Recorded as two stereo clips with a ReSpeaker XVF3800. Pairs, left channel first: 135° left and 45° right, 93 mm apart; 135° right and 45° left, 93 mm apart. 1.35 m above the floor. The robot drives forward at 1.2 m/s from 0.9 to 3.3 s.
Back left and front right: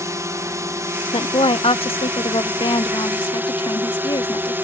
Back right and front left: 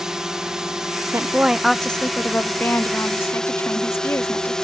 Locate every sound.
0.0 s a drone: 35° right; by 4.6 s 60° right
1.1 s a woman speaking: 105° left; by 4.5 s 165° left